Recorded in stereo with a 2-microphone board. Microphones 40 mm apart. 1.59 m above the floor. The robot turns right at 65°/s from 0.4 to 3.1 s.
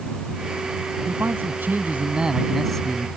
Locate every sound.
1.1 s a man speaking: 100° right; by 3.1 s 35° left